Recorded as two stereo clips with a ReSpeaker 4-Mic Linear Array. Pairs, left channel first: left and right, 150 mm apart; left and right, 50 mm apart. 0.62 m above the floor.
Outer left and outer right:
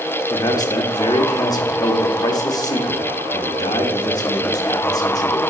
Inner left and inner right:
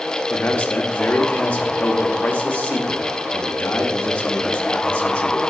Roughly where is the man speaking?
Left.